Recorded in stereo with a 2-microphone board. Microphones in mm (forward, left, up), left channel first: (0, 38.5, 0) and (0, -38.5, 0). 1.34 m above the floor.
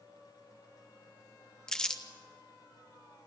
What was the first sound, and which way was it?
Crumpling, 10° left (ahead or behind).